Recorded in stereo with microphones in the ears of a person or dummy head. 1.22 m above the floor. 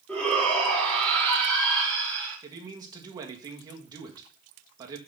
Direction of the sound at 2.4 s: 25° right (ahead or behind).